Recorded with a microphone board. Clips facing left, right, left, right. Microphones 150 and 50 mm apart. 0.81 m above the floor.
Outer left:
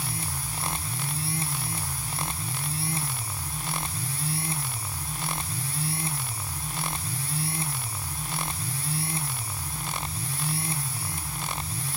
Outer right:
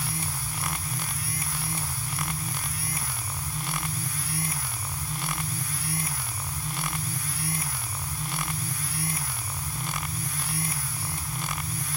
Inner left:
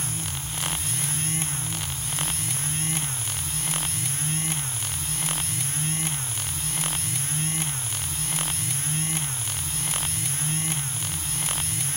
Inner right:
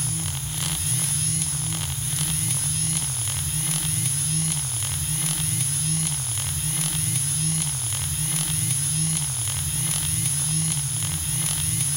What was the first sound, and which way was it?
Only background noise.